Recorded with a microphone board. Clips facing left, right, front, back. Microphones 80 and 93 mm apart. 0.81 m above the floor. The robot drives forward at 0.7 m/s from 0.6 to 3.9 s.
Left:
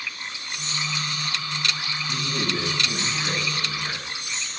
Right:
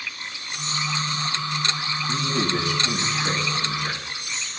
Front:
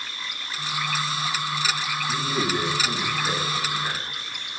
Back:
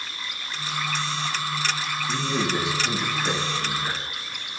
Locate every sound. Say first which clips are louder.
2.1 s a man speaking: right 4 dB, even; 105° right, 1.5 m; by 4.0 s 140° right, 2 m